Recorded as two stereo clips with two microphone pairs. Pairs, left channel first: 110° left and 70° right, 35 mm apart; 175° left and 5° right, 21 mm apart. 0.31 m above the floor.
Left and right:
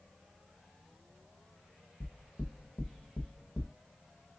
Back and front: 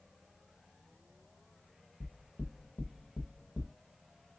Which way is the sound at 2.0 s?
165° left.